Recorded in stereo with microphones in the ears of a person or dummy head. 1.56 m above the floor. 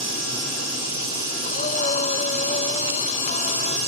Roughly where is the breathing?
Left.